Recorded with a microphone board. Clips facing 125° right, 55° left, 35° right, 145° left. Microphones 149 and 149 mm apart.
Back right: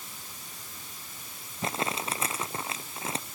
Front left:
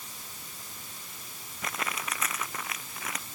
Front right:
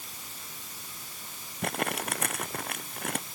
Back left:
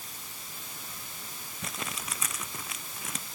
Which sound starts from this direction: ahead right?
Crumpling, at 1.6 s.